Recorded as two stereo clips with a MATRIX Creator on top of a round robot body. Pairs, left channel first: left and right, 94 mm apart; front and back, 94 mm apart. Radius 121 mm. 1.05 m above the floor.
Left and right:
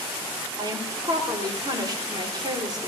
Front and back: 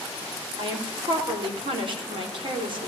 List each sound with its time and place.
0.6 s a woman speaking: 145° right, 3.5 m